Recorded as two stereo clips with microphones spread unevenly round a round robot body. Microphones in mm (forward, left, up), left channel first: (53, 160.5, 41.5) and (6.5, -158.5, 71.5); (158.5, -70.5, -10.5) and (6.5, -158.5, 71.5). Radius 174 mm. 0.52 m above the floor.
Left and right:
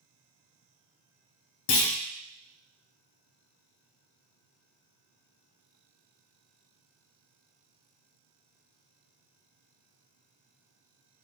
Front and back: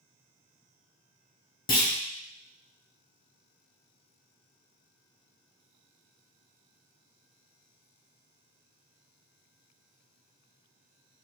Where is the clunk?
70° left, 0.8 m.